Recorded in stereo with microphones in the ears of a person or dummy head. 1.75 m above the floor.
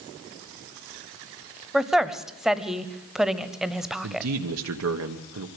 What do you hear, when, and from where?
1.7 s a woman speaking: 5° right (ahead or behind), 0.9 m
4.0 s a man speaking: 80° right, 1.3 m